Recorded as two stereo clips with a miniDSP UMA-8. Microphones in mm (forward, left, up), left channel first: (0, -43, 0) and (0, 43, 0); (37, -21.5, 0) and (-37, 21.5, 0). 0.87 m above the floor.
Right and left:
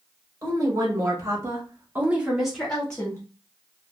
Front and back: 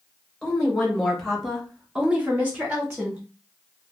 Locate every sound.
0.4 s a woman speaking: 50° left, 1.6 m; by 3.2 s 155° right, 1.1 m